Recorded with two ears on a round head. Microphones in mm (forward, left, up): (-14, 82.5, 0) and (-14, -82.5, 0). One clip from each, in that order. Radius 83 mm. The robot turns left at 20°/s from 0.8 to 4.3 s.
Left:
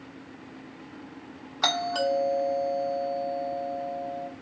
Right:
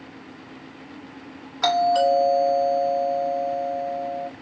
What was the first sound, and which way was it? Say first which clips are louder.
A doorbell: right 7 dB; 10° right.